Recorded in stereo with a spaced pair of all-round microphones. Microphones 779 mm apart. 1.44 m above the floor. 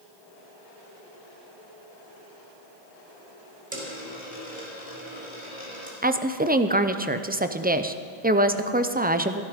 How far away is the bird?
No bird in this recording.